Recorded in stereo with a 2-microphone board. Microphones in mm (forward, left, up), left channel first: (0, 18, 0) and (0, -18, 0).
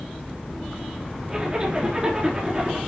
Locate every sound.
1.3 s a zipper: 25° right (ahead or behind), 2.5 m